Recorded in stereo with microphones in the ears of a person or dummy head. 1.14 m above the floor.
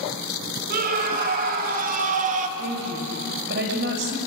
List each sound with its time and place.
0.7 s a scream: 50° right (ahead or behind), 5 m; by 2.5 s 40° right (ahead or behind), 2 m
2.6 s a woman speaking: 60° right (ahead or behind), 6 m